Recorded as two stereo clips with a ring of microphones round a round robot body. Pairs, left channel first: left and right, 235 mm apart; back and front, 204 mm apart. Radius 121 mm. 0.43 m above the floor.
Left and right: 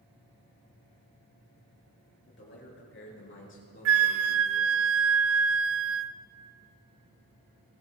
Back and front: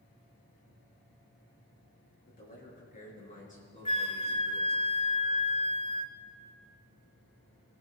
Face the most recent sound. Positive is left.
turn(degrees=-115)